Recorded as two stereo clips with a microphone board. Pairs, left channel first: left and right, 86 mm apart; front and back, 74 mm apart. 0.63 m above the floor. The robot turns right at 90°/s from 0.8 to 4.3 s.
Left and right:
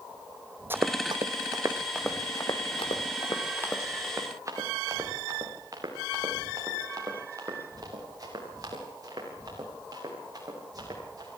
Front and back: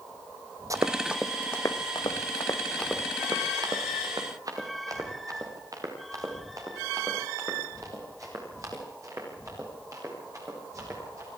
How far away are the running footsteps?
About 1.1 m.